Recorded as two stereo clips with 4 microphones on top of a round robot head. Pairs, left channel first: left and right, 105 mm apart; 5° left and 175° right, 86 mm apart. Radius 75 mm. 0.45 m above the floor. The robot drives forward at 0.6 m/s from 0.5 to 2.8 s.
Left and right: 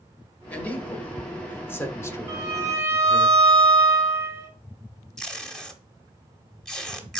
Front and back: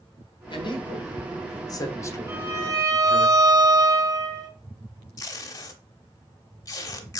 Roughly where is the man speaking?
Ahead.